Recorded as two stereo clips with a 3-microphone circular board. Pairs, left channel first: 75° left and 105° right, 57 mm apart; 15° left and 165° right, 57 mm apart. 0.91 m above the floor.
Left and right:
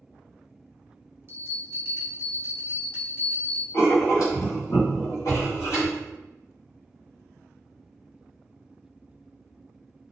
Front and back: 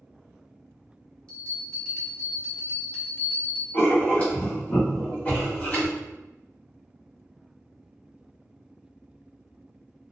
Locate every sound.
1.3 s a bell: 55° right, 0.8 m
3.7 s writing: 75° left, 1.6 m